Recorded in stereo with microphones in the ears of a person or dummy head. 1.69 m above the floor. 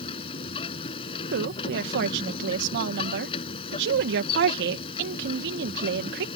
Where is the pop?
No pop in this recording.